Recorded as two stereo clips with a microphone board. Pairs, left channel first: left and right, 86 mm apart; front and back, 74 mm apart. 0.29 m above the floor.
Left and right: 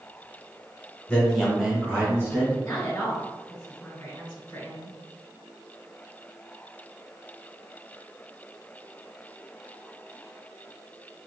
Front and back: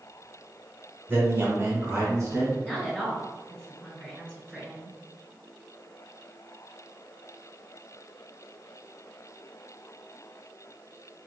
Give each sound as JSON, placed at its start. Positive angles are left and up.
{"t": 1.1, "sound": "a man speaking", "azimuth_deg": 150, "distance_m": 1.3}
{"t": 2.6, "sound": "a woman speaking", "azimuth_deg": 55, "distance_m": 1.4}